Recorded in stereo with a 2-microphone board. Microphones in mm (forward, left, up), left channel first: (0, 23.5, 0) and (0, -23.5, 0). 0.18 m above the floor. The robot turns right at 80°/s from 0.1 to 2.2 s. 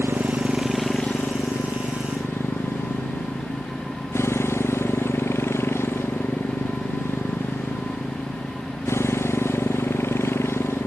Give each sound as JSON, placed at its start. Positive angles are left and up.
{"t": 0.0, "sound": "a motorcycle", "azimuth_deg": -50}